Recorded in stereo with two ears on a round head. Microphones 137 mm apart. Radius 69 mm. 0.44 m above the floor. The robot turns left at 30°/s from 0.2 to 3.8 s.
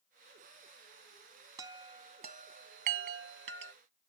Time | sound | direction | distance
1.6 | a chime | 25° right (ahead or behind) | ?